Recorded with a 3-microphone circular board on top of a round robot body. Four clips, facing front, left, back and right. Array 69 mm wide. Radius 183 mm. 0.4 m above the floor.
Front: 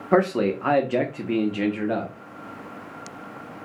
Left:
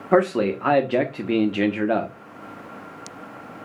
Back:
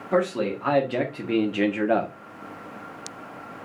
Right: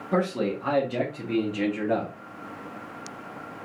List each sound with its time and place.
0.1 s a man speaking: 60° left, 1.8 m; by 2.1 s 140° left, 1.5 m